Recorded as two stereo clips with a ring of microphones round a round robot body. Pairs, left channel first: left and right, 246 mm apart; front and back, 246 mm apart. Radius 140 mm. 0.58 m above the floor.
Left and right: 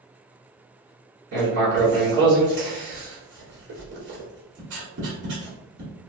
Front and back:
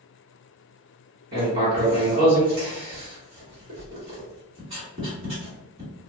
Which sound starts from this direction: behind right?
Writing, at 1.3 s.